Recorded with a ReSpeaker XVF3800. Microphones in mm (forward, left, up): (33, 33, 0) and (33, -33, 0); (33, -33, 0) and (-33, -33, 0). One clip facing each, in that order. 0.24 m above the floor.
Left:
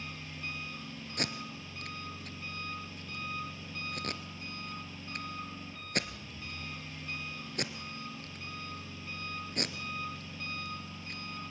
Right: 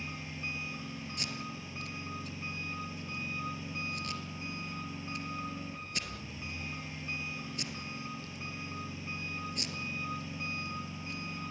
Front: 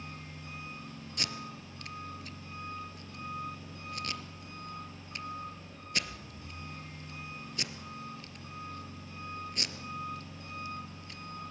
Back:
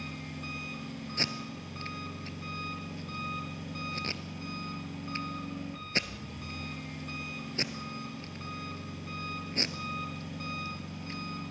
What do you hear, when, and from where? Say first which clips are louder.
0.0 s an engine running: right 2 dB, back 5 dB; 160° right, 3 m
1.2 s tape being pulled: left 6 dB, back 2 dB; 125° left, 1.3 m